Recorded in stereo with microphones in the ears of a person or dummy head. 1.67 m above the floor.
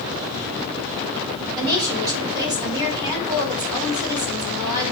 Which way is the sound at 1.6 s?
20° right (ahead or behind).